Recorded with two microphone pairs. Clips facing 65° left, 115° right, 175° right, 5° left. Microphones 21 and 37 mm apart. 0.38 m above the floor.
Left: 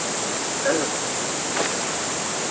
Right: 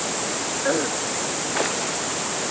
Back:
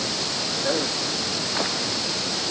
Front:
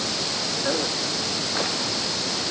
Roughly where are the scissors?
I don't hear scissors.